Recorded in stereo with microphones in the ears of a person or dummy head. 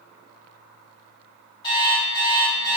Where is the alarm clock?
30° left (ahead or behind), 1.5 m.